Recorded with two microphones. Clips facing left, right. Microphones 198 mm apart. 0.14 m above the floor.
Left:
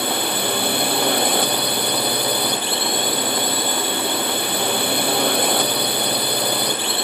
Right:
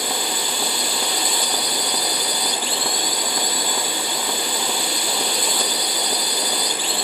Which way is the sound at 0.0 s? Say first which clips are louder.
Left 4 dB; 60° left (ahead or behind).